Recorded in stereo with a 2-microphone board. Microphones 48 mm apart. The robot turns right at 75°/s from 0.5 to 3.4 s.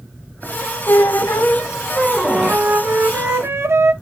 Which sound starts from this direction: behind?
A flute, at 2.2 s.